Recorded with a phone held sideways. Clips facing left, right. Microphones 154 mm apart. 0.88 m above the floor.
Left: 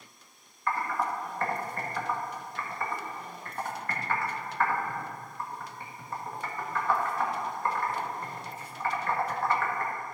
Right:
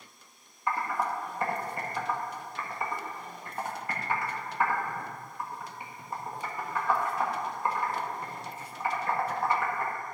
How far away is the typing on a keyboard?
About 1.4 m.